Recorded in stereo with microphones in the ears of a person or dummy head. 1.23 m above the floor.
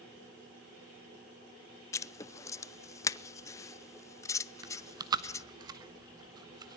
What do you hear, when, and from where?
1.9 s writing: 20° left (ahead or behind), 0.5 m
4.6 s chewing: 20° right (ahead or behind), 1.0 m